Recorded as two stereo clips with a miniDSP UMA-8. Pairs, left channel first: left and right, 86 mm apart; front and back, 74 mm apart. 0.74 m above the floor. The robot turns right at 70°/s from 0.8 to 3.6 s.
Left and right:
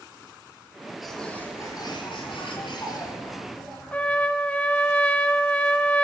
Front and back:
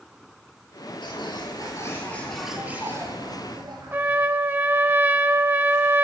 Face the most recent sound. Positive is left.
turn(degrees=150)